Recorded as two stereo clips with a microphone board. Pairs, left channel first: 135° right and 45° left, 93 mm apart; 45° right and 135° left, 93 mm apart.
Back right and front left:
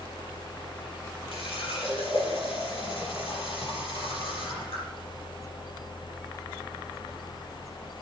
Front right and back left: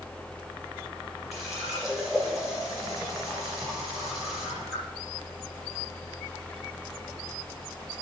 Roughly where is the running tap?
Behind right.